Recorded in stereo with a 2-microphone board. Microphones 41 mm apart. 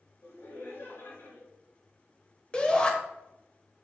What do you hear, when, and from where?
0.2 s laughter: 60° left (ahead or behind), 4 m
2.5 s a shout: 20° left (ahead or behind), 1.3 m